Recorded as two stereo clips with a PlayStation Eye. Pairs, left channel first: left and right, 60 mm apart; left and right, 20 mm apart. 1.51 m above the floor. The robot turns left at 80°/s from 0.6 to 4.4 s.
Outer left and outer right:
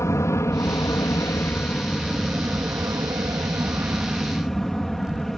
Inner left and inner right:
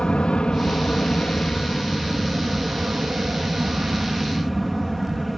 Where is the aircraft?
120° left; by 5.4 s 175° left.